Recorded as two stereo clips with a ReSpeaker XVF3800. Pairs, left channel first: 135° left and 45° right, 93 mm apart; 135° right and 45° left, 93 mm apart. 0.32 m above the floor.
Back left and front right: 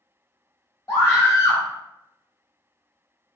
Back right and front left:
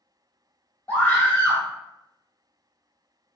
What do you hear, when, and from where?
0.9 s a scream: 165° left, 1.7 m